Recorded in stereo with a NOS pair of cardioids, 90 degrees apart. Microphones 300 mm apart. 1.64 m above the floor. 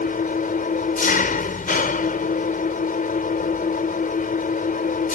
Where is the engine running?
30° left.